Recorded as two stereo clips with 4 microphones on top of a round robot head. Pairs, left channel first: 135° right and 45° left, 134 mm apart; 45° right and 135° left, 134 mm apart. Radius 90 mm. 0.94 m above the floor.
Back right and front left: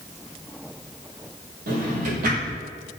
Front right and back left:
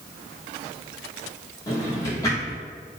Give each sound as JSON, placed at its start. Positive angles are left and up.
{"t": 1.7, "sound": "a drawer", "azimuth_deg": 20, "distance_m": 1.3}